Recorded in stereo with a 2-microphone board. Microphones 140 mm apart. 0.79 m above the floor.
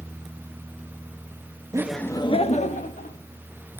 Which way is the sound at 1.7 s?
20° right (ahead or behind).